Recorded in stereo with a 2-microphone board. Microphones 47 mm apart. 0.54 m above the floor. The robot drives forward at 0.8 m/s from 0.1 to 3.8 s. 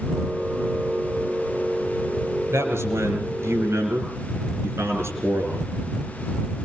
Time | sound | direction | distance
2.5 | a man speaking | 80° right | 8 m